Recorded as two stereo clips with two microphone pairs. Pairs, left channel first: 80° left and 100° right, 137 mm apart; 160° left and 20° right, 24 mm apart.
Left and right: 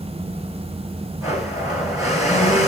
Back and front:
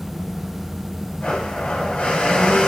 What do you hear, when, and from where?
1.2 s a blender: 165° right, 3 m